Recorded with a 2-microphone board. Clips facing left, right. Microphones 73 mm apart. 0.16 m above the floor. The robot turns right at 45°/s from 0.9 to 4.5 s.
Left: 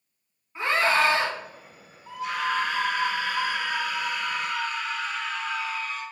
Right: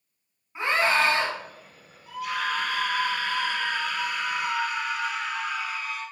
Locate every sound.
0.6 s a scream: 10° right (ahead or behind), 1.2 m; by 1.3 s centre (ahead or behind), 1.2 m
2.1 s a scream: 90° left, 1.4 m; by 6.0 s 160° right, 1.4 m